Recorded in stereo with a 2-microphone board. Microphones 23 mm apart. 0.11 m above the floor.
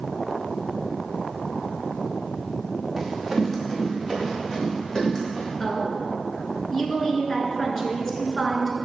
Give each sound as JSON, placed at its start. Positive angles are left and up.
{"t": 3.0, "sound": "running footsteps", "side_deg": 0, "distance_m": 3.0}
{"t": 5.6, "sound": "a woman speaking", "side_deg": 20, "distance_m": 1.5}